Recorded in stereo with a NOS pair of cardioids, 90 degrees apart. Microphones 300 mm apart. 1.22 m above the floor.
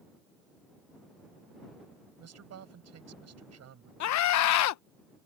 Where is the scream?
70° left.